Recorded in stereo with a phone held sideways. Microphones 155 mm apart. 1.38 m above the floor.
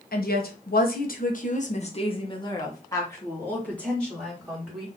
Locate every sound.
0.1 s a woman speaking: 75° left (ahead or behind), 1.2 m; by 4.9 s centre (ahead or behind), 2.5 m